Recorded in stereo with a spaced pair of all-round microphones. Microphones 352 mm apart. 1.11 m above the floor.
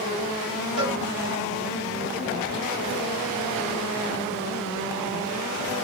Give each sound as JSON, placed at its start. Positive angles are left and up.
{"t": 0.8, "sound": "a cowbell", "side_deg": -85, "distance_m": 4.5}